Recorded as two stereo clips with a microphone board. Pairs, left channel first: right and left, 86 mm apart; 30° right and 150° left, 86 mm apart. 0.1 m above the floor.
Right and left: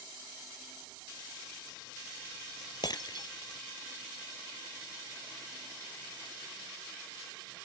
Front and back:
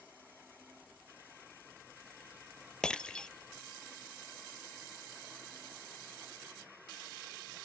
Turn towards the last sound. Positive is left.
turn(degrees=-110)